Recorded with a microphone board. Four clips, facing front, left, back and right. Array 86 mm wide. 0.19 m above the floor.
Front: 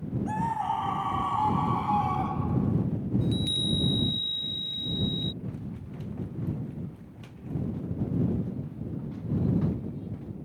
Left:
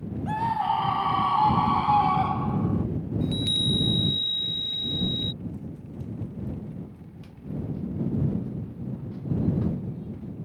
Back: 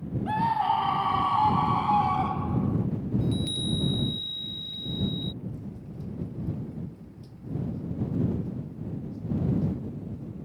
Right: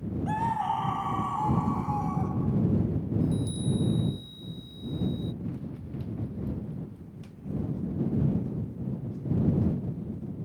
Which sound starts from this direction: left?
A chime, at 3.2 s.